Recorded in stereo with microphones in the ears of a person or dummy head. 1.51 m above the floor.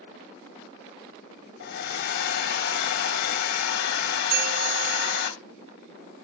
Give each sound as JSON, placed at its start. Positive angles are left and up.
{"t": 1.6, "sound": "a hair dryer", "side_deg": 60, "distance_m": 0.7}
{"t": 4.3, "sound": "a bell", "side_deg": -50, "distance_m": 1.2}